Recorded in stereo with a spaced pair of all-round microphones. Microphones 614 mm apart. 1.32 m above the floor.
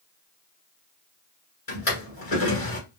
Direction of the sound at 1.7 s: 65° left (ahead or behind).